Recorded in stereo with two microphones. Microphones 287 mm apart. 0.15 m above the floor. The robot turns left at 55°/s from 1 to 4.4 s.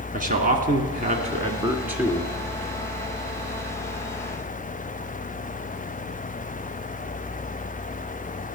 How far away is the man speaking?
About 1.6 m.